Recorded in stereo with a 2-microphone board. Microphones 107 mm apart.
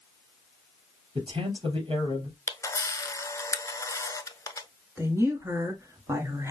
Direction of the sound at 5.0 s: 25° right (ahead or behind).